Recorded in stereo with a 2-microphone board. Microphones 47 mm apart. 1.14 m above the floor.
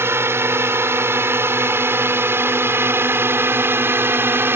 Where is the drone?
60° right (ahead or behind); by 4.6 s 55° right (ahead or behind).